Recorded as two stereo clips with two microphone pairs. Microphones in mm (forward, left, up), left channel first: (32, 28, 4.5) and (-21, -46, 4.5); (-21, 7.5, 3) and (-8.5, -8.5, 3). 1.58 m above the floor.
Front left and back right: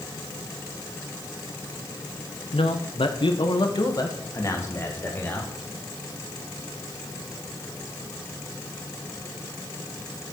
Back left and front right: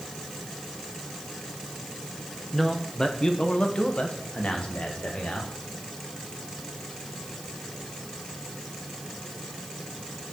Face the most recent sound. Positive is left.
turn(degrees=125)